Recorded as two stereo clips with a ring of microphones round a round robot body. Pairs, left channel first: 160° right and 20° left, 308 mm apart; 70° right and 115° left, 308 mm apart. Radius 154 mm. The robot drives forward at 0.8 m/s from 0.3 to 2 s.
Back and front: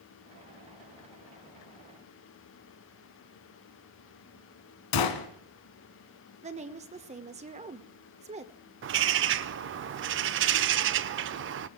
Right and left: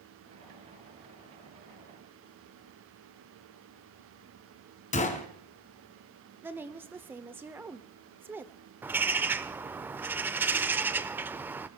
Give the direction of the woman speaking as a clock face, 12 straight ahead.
11 o'clock.